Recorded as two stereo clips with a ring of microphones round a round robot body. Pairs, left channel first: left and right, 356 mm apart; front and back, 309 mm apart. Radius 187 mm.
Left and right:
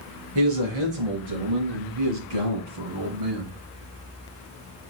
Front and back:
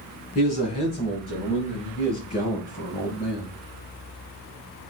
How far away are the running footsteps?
I don't hear running footsteps.